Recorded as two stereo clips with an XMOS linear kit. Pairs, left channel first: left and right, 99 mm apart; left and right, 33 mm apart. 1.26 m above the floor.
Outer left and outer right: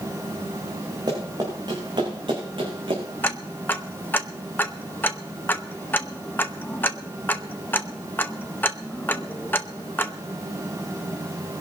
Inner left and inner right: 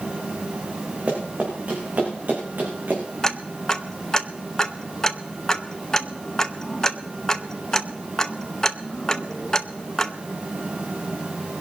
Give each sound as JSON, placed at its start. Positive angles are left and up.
{"t": 1.1, "sound": "running footsteps", "side_deg": -50, "distance_m": 8.0}
{"t": 3.2, "sound": "ticking", "side_deg": 20, "distance_m": 0.8}